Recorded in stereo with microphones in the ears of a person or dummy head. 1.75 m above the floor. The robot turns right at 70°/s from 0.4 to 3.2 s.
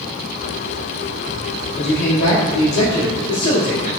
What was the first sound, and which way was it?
A man speaking, 35° left.